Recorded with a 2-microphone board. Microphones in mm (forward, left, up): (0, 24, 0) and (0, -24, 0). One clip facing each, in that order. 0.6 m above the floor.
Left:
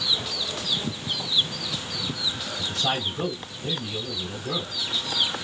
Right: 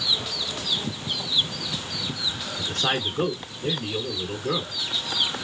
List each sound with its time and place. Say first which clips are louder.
2.6 s a man speaking: right 1 dB; 50° right (ahead or behind), 2 m